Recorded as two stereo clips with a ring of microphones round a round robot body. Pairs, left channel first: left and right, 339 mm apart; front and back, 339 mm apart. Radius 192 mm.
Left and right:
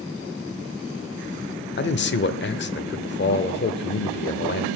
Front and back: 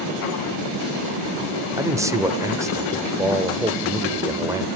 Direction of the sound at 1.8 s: 105° left.